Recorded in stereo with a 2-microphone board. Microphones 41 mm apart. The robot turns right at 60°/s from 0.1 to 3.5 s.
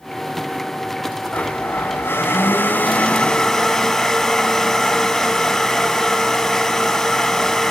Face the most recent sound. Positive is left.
turn(degrees=180)